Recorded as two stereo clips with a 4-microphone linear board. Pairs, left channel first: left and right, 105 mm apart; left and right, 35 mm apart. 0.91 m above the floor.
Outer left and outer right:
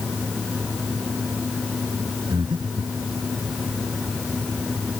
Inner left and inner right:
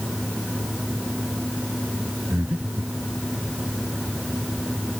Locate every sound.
2.3 s breathing: 45° right (ahead or behind)